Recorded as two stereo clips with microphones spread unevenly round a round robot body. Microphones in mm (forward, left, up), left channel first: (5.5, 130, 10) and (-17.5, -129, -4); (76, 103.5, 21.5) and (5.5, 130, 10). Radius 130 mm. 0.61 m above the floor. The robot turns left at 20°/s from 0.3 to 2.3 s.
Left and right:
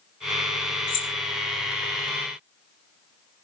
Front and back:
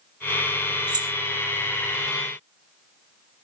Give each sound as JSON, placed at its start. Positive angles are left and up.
{"t": 0.9, "sound": "keys jangling", "azimuth_deg": 135, "distance_m": 2.0}